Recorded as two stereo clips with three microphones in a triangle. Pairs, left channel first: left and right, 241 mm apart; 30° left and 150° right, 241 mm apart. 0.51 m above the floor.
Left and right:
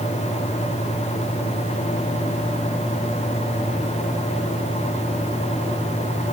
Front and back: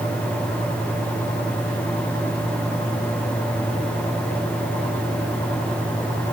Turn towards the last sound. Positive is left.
No sound to turn to.